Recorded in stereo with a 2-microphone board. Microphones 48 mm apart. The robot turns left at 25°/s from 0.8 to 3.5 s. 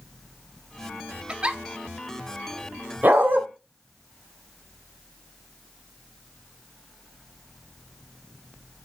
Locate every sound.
1.3 s a giggle: 20° right (ahead or behind), 0.6 m; by 1.6 s 25° right (ahead or behind), 0.6 m
3.0 s a dog barking: 40° right (ahead or behind), 1.3 m; by 3.4 s 50° right (ahead or behind), 1.3 m